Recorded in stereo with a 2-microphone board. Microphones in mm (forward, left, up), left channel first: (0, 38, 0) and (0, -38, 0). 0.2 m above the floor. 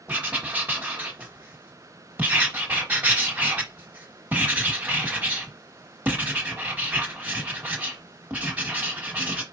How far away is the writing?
About 1.4 m.